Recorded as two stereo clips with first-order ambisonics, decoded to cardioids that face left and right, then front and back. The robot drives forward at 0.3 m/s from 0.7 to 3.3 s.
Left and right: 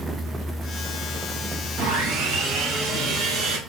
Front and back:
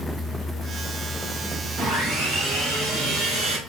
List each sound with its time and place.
1.8 s sawing: 110° right, 1.0 m; by 3.6 s 130° right, 1.3 m